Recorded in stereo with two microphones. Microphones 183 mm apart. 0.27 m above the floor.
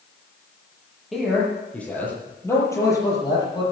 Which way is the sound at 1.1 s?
Centre (ahead or behind).